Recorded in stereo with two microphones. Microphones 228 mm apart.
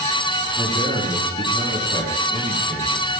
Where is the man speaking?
40° right (ahead or behind), 4.5 m.